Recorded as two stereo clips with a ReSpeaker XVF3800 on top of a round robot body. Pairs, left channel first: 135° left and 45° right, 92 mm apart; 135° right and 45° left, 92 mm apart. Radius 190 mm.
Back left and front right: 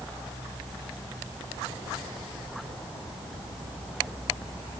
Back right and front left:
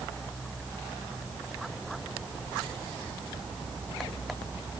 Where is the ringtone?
No ringtone in this recording.